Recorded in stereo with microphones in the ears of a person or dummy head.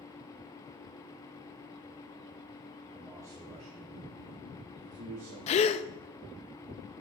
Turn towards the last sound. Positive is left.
turn(degrees=35)  # may be behind; listen again after turning